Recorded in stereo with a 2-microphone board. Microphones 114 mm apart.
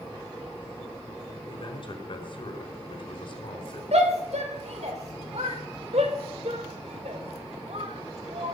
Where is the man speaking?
55° left (ahead or behind), 4 m.